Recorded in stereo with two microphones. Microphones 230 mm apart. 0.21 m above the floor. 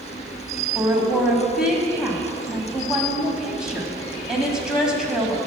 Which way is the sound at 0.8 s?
5° right (ahead or behind).